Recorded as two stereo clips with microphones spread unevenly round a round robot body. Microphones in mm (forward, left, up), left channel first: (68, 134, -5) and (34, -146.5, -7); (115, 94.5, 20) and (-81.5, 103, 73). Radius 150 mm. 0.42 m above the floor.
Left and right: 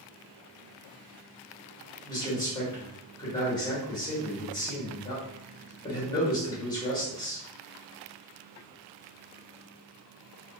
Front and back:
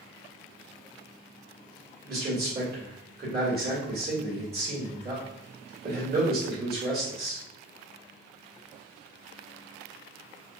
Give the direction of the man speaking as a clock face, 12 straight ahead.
7 o'clock.